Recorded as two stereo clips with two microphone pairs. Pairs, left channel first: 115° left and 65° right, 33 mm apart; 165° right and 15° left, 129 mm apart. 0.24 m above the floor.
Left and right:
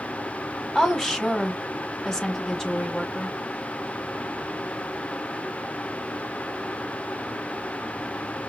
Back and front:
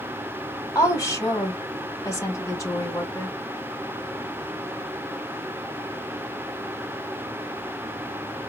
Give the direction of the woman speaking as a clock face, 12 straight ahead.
7 o'clock.